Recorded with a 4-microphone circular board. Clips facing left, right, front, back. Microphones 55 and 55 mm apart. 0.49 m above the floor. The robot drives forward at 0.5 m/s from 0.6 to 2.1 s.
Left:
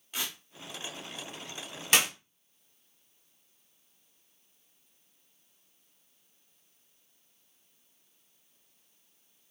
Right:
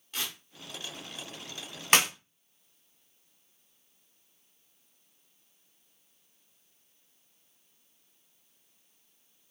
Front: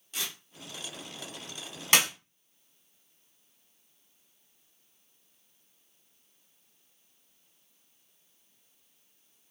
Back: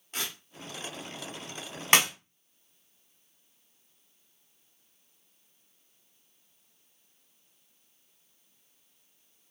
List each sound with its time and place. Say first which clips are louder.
0.1 s tearing paper: even, back 1 dB; 160° left, 0.8 m
1.9 s a clap: right 2 dB, back 2 dB; 135° right, 1.4 m